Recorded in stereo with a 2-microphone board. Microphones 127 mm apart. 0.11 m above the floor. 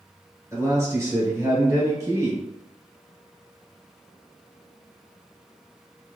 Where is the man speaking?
25° right (ahead or behind), 1.7 m.